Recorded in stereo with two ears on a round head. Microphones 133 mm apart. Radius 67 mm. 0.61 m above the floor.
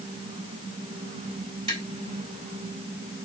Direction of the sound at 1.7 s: 35° right (ahead or behind).